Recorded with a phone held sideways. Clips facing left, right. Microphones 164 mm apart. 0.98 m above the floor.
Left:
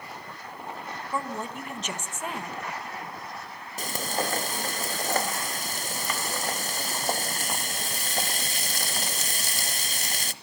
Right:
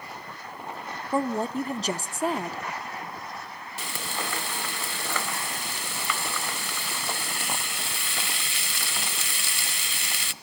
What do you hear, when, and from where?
1.1 s a woman speaking: 35° right (ahead or behind), 1.0 m
3.8 s frying: 40° left (ahead or behind), 0.9 m